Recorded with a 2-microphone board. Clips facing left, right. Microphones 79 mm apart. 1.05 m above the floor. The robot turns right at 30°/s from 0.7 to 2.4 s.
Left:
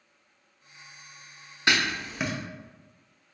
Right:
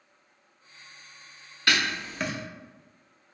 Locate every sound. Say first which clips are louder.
1.7 s writing: left 1 dB; 20° left (ahead or behind), 0.5 m; by 2.3 s 5° left (ahead or behind), 0.5 m